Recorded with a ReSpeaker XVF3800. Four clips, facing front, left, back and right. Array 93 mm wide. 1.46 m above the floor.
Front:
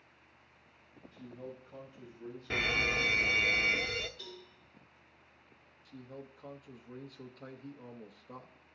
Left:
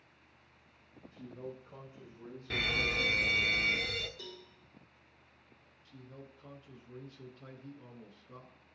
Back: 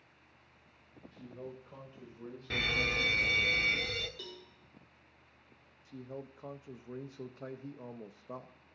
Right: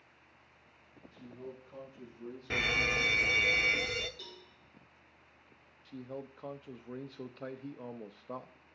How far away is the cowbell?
About 4 m.